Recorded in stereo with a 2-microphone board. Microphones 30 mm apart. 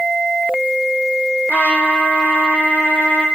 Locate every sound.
1.5 s a trumpet: 75° left (ahead or behind), 3 m